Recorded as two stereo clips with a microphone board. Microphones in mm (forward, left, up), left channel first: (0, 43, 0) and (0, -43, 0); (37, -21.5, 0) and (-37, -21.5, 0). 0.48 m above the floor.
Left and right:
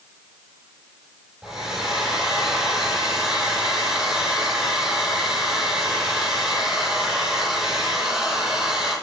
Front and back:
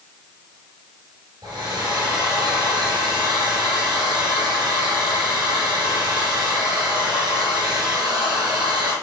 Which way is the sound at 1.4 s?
175° right.